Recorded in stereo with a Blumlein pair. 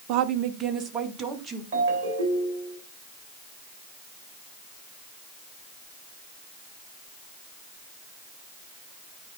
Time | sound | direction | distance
0.1 | a woman speaking | 40° right | 0.6 m
1.7 | a ringtone | 55° right | 2.5 m